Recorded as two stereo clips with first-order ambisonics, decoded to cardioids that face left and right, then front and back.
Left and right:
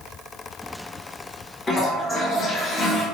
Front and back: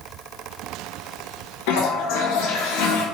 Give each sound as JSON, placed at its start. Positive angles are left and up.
{"t": 1.7, "sound": "a toilet flushing", "azimuth_deg": 15, "distance_m": 0.7}